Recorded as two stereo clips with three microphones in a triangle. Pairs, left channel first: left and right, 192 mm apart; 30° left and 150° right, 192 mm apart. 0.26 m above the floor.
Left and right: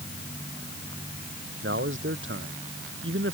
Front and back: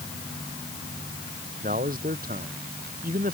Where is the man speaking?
105° right.